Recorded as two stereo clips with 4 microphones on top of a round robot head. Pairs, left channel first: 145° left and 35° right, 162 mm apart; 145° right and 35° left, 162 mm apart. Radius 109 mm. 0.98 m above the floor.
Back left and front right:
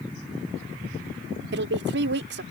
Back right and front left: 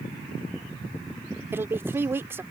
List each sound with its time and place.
1.5 s a woman speaking: 40° right